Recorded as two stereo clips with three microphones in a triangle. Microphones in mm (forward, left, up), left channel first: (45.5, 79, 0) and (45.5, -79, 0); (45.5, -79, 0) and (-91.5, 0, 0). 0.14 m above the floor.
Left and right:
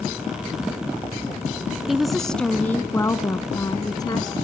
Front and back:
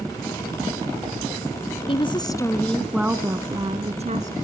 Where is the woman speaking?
5° right, 1.5 m; by 4.3 s 145° left, 1.8 m.